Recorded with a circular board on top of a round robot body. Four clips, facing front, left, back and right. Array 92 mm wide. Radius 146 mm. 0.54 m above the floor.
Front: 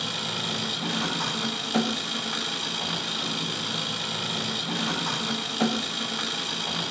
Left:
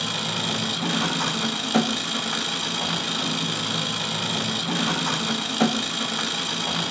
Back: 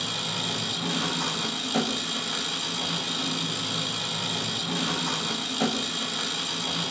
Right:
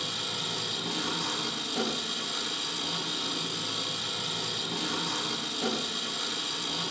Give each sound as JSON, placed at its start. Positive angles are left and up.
{"t": 0.0, "sound": "an engine running", "azimuth_deg": 80, "distance_m": 1.4}